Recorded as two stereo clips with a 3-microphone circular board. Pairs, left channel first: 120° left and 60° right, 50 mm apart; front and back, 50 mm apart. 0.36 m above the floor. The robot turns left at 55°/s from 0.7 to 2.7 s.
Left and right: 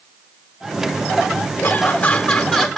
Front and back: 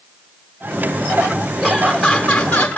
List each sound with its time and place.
1.6 s laughter: 115° left, 1.4 m; by 2.8 s 55° left, 1.4 m